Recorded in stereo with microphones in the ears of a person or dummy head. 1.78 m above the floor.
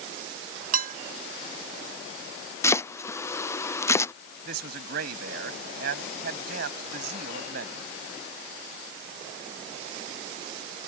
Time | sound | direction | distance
0.7 | dishes clattering | 50° right (ahead or behind) | ?
2.6 | chopping | 15° left (ahead or behind) | ?
4.5 | a man speaking | 65° right (ahead or behind) | ?